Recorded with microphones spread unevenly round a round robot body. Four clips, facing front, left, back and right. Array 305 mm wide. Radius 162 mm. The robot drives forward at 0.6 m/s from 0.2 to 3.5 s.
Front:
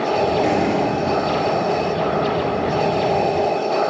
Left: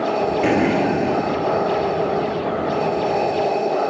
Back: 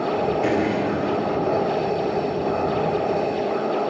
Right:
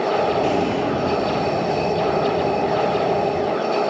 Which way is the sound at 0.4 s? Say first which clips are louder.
Left 3 dB, front 3 dB; 75° left.